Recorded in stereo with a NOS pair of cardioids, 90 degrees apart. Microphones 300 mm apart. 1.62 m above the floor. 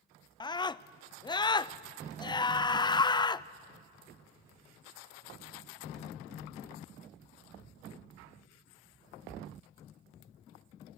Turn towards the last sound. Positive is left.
turn(degrees=15)